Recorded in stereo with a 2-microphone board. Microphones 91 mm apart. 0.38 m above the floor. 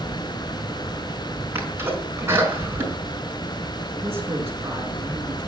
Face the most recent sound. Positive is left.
turn(degrees=-30)  # may be behind; listen again after turning